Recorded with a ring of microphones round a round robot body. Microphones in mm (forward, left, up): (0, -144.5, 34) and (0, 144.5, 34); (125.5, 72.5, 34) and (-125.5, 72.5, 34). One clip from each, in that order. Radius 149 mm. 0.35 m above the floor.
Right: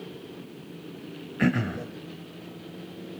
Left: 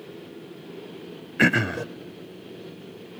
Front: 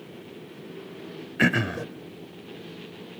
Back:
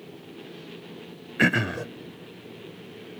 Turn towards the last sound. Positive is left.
turn(degrees=100)